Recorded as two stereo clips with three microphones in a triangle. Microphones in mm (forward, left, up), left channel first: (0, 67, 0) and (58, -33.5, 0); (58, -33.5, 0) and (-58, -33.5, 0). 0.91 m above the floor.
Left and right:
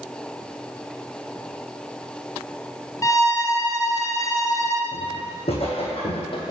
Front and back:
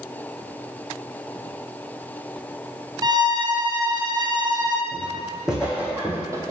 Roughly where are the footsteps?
Left.